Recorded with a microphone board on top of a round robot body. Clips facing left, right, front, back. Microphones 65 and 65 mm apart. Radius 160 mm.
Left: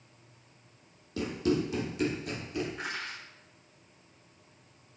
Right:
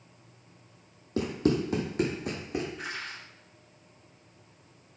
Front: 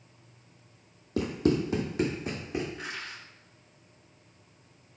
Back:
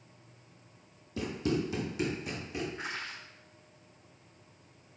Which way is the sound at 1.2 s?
35° right.